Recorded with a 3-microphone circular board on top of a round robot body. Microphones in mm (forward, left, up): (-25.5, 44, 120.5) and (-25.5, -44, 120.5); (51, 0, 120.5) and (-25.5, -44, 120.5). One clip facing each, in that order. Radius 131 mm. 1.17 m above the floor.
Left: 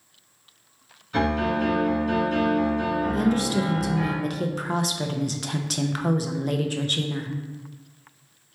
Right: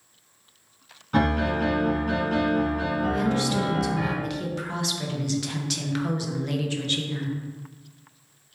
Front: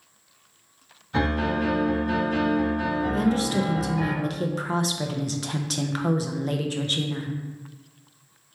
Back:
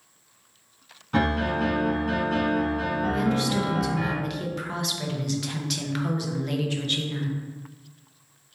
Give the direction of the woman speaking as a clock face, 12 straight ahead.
10 o'clock.